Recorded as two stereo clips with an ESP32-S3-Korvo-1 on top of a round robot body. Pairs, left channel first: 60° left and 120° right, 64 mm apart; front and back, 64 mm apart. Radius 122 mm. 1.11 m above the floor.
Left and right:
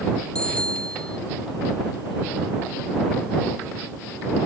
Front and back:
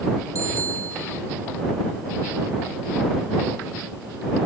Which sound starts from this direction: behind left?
A bicycle bell, at 0.3 s.